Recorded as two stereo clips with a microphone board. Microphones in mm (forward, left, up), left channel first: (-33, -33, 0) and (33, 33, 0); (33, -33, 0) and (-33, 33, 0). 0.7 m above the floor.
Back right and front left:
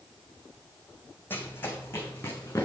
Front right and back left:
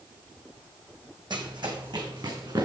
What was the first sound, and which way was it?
Running footsteps, 160° left.